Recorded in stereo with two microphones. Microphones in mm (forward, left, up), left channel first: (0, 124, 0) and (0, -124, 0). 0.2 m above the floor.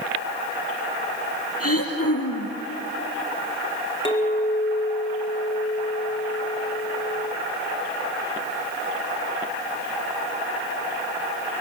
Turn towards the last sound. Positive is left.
turn(degrees=20)  # may be behind; listen again after turning